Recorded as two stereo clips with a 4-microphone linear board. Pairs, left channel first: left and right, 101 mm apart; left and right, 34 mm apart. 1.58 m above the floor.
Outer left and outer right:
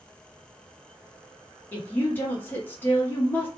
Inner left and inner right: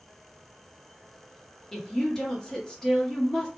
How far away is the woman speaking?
About 1.2 m.